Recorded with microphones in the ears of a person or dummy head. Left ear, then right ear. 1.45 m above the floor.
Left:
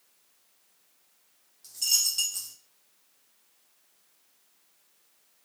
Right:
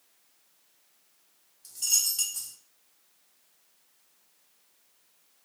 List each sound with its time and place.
1.6 s a dropped coin: 55° left (ahead or behind), 1.6 m